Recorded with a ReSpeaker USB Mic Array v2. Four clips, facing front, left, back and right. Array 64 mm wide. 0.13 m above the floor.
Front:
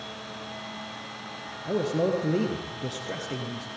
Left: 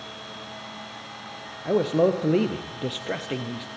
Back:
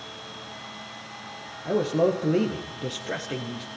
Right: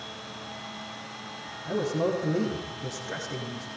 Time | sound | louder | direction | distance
1.6 | a man speaking | left 6 dB, back 3 dB | 100° left | 3.5 m